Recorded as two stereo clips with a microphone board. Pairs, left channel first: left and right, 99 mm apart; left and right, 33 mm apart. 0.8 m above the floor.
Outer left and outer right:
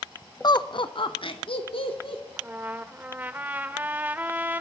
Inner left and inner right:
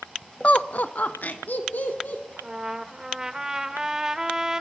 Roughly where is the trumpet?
Centre.